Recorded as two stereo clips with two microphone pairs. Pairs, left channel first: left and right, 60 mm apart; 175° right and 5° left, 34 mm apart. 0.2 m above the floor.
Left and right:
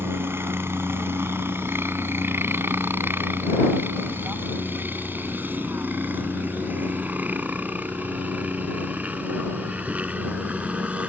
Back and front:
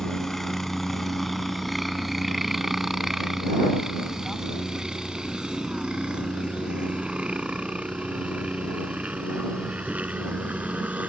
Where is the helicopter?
95° right; by 11.1 s 20° right.